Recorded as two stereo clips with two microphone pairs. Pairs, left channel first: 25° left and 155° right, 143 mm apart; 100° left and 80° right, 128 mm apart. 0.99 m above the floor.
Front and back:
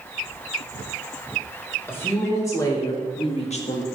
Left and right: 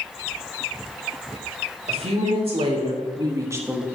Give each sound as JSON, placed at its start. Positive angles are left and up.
{"t": 1.9, "sound": "a woman speaking", "azimuth_deg": -45, "distance_m": 3.5}